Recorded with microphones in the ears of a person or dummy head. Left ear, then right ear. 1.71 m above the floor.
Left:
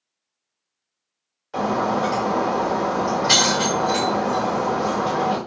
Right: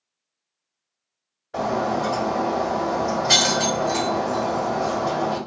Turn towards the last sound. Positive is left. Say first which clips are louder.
# left 2 dB
turn(degrees=50)  # may be behind; listen again after turning